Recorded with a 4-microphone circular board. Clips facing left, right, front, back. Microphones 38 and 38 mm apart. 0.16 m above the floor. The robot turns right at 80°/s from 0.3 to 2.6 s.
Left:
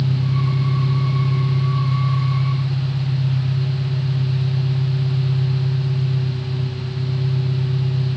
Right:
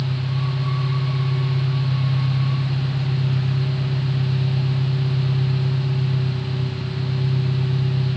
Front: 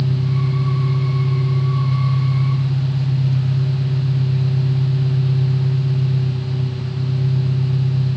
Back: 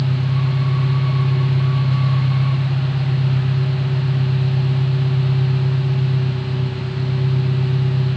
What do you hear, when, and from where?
0.0 s an engine running: 65° left, 3 m; by 8.2 s 110° right, 3 m